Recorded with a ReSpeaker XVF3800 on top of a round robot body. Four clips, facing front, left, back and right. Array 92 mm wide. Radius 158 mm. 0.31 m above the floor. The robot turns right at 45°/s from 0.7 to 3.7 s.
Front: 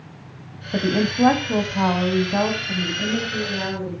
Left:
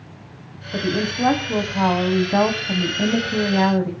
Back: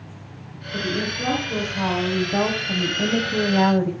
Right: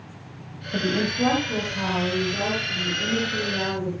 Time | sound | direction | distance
0.7 | a woman speaking | 5° left | 4 m